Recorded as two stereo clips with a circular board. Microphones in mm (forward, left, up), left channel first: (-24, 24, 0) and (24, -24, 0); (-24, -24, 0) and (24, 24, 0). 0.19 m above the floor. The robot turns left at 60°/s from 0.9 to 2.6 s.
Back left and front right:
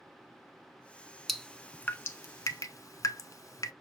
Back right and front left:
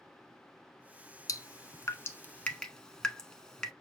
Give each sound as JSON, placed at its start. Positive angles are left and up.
{"t": 1.3, "sound": "dripping", "azimuth_deg": -135, "distance_m": 0.7}